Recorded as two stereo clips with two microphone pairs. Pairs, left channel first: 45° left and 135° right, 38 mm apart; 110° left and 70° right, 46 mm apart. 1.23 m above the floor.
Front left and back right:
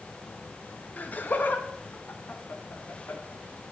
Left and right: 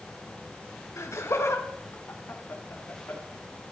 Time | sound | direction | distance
1.0 | laughter | 90° left | 1.4 m